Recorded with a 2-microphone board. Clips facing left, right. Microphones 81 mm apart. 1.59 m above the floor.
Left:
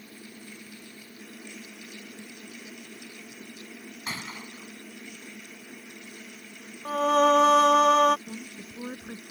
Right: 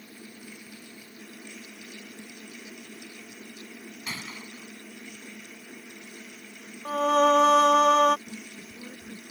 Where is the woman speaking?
75° left (ahead or behind).